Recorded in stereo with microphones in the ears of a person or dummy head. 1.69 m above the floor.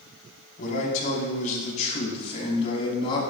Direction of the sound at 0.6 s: 45° left (ahead or behind).